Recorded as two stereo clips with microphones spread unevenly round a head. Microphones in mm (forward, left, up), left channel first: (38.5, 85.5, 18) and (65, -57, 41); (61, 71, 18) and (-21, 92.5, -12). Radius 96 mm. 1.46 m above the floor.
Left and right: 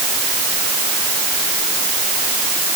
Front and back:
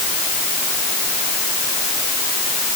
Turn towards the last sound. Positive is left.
No sound to turn to.